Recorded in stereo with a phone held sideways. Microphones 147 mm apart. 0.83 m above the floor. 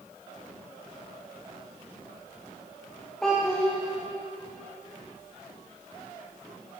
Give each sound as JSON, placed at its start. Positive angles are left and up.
{"t": 3.2, "sound": "a child speaking", "side_deg": 5, "distance_m": 0.9}